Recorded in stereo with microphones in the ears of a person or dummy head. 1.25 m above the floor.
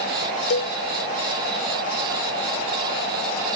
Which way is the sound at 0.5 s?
65° left (ahead or behind).